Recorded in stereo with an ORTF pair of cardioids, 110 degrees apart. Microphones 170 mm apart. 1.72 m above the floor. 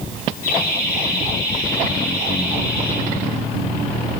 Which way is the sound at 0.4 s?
55° left.